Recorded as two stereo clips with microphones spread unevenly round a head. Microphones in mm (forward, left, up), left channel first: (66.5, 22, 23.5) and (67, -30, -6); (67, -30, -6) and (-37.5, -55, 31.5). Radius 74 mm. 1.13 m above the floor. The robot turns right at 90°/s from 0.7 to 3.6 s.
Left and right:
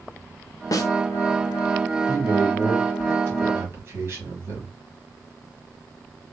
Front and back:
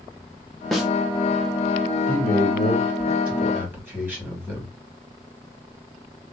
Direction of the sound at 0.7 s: 70° left.